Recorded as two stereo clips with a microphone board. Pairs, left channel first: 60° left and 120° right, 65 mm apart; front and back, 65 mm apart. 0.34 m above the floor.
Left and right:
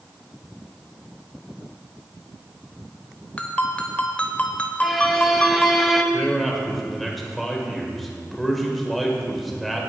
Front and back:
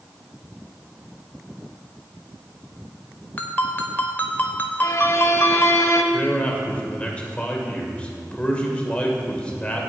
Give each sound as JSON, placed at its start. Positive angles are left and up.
{"t": 3.4, "sound": "a ringtone", "azimuth_deg": 20, "distance_m": 0.9}
{"t": 4.8, "sound": "a violin", "azimuth_deg": -30, "distance_m": 0.8}
{"t": 6.1, "sound": "a man speaking", "azimuth_deg": -25, "distance_m": 1.5}